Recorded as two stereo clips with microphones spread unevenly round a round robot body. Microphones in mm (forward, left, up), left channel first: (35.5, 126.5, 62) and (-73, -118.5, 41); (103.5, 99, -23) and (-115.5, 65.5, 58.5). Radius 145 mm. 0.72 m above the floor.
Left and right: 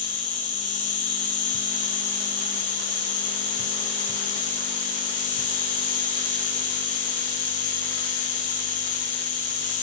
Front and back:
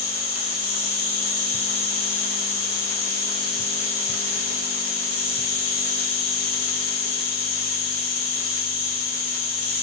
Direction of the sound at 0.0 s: Straight ahead.